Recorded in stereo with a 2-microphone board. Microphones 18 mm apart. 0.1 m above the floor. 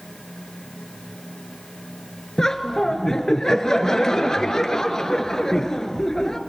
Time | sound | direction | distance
2.4 | laughter | 35° left (ahead or behind) | 1.2 m